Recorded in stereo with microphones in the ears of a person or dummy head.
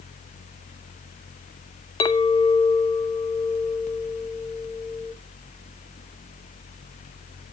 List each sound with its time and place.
2.0 s a clink: 20° left (ahead or behind), 0.8 m